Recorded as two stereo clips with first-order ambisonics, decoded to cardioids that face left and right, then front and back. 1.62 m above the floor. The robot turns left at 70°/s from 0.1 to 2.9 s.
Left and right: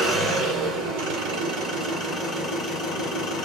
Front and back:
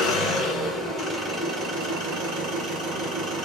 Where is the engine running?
25° right, 2.5 m; by 3.5 s 135° left, 2.5 m.